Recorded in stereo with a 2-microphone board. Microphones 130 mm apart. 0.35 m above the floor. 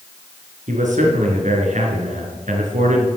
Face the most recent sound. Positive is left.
turn(degrees=-70)  # may be behind; listen again after turning